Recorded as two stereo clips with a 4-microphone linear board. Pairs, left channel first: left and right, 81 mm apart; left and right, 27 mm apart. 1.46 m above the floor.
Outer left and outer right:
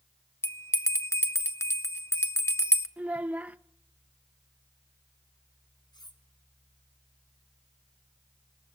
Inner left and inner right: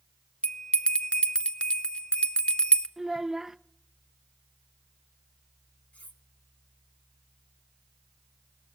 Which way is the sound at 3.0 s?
15° right (ahead or behind).